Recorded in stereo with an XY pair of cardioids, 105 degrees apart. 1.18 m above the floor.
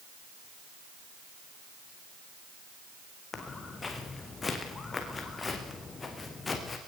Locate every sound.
3.3 s footsteps: 30° left, 5.5 m